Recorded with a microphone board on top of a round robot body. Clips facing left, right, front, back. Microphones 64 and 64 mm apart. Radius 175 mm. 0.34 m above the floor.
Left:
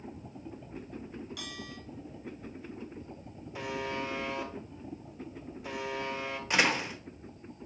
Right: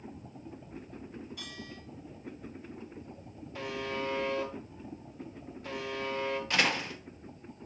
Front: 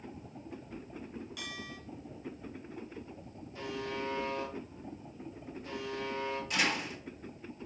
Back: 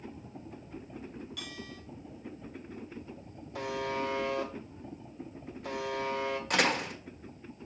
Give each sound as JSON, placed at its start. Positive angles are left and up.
{"t": 1.4, "sound": "a bell", "azimuth_deg": 85, "distance_m": 4.0}
{"t": 3.5, "sound": "a buzzer", "azimuth_deg": 170, "distance_m": 1.5}
{"t": 6.5, "sound": "a door slam", "azimuth_deg": 160, "distance_m": 1.4}